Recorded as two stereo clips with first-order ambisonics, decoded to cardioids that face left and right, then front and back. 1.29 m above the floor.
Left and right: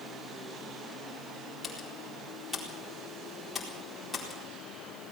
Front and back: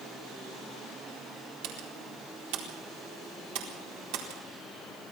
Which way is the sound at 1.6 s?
170° left.